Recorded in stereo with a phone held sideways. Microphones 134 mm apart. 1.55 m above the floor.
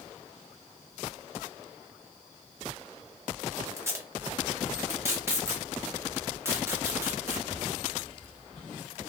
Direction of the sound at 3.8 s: 20° right (ahead or behind).